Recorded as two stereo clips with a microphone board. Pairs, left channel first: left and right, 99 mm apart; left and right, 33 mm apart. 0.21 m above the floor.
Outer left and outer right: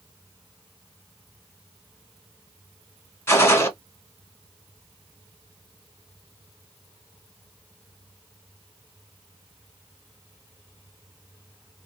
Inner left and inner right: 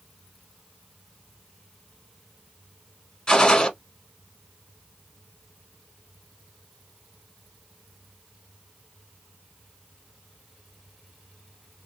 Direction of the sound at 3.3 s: 25° left (ahead or behind).